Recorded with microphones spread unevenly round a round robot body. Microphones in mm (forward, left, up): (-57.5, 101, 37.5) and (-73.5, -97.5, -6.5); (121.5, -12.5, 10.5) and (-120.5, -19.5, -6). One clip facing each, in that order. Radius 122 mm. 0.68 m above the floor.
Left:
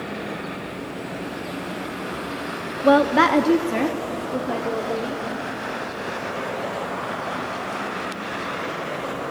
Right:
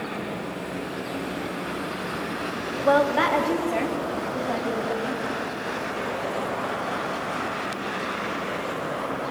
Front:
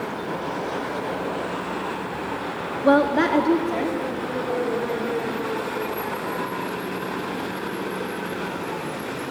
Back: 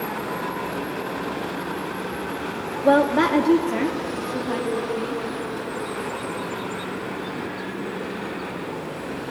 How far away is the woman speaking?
About 1.0 m.